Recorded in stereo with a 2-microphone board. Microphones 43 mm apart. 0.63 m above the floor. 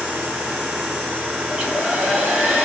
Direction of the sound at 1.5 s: 20° right (ahead or behind).